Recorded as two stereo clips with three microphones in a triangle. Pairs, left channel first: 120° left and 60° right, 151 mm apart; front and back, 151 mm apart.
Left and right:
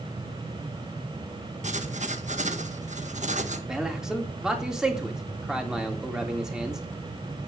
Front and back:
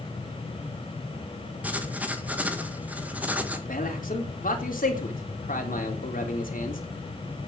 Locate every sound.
1.6 s writing: 100° right, 1.8 m
3.7 s a man speaking: 25° left, 3.5 m